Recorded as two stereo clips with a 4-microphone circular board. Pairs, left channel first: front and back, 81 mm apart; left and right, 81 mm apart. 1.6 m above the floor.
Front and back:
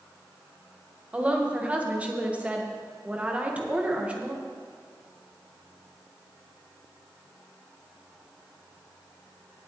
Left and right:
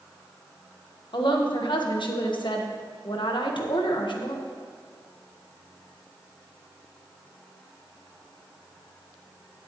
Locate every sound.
1.1 s a woman speaking: 110° left, 1.5 m